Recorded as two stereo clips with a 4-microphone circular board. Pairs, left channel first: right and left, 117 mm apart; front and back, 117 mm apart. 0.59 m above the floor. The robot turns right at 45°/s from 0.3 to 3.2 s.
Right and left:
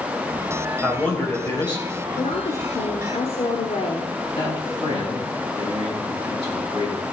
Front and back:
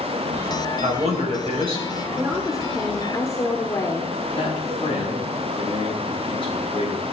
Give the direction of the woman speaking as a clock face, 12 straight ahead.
4 o'clock.